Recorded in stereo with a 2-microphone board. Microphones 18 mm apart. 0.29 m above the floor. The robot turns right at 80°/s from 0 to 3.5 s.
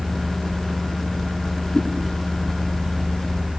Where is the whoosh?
55° left (ahead or behind), 4 m; by 1.9 s 65° left (ahead or behind), 4 m.